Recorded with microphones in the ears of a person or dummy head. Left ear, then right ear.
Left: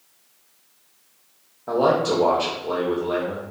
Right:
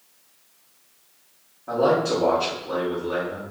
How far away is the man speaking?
About 0.7 m.